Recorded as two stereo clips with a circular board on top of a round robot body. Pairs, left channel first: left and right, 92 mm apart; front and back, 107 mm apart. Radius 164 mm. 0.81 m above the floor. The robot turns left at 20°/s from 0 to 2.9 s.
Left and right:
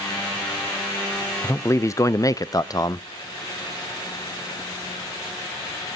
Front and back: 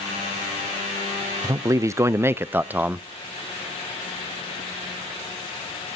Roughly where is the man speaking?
Behind left.